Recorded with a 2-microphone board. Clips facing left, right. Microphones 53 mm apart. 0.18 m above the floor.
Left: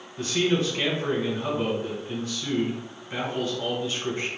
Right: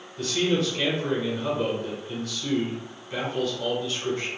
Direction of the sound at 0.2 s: 25° left (ahead or behind).